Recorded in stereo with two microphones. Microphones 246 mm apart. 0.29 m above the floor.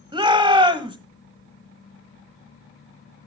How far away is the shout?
About 1.4 m.